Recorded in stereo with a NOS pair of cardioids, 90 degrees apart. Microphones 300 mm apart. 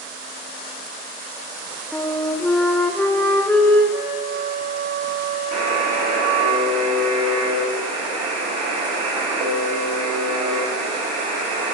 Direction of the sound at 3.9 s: 45° right.